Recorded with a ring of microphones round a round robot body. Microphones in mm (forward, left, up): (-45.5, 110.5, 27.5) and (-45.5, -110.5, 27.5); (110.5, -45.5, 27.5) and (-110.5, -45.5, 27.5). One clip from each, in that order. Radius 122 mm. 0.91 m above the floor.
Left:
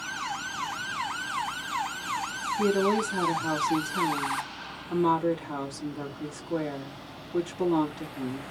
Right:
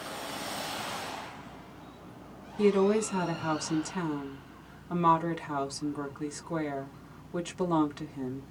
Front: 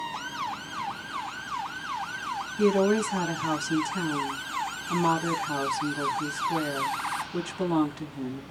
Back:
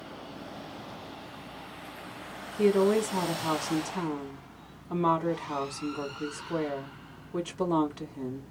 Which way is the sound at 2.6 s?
70° right.